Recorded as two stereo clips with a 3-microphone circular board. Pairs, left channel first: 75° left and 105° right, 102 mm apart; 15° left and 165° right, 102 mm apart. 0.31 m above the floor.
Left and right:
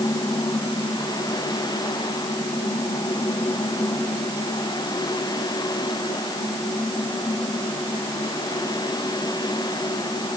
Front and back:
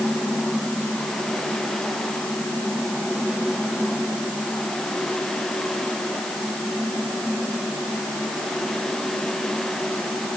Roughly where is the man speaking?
I don't hear a man speaking.